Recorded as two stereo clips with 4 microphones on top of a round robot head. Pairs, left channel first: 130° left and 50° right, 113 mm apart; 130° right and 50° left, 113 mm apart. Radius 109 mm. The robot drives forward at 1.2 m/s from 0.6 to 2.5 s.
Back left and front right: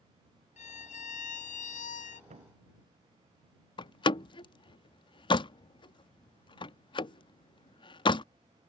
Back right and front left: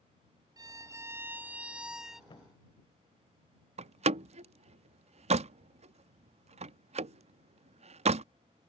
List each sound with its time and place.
0.6 s a violin: 110° left; by 2.2 s 140° left
2.3 s a thud: 75° right
3.8 s a door slam: 80° left